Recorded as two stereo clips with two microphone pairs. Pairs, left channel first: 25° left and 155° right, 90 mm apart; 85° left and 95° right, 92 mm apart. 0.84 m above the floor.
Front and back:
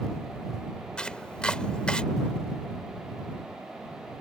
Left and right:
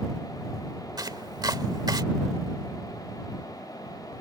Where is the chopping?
50° right.